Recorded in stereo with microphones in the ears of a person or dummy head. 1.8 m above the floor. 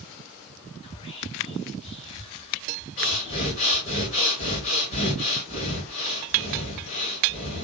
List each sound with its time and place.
0.8 s whispering: 30° left (ahead or behind), 0.7 m
3.0 s breathing: 35° left (ahead or behind), 1.1 m